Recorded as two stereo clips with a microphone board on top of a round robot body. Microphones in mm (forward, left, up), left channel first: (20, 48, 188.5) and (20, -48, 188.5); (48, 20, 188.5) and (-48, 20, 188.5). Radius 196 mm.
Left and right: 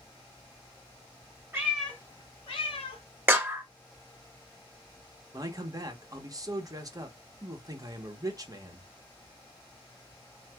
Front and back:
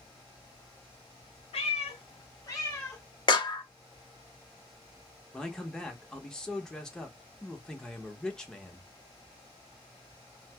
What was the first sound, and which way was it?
A cat meowing, 25° right.